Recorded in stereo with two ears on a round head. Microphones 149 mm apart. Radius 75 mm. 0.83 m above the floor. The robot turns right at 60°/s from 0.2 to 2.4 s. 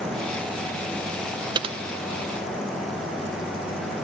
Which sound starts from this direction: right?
Typing on a keyboard, at 1.6 s.